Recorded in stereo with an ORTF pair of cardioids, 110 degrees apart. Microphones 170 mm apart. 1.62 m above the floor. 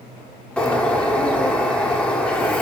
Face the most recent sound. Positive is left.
turn(degrees=10)